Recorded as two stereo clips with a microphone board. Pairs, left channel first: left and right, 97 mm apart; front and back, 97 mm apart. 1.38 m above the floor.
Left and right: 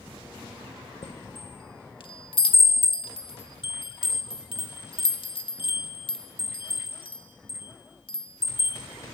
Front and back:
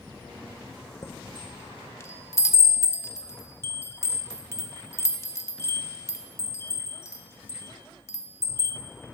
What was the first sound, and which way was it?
A chime, 60° left.